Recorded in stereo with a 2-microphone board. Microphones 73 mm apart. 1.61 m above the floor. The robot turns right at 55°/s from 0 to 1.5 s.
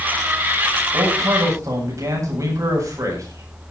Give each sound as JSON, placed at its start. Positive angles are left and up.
{"t": 0.9, "sound": "a man speaking", "azimuth_deg": -75, "distance_m": 9.0}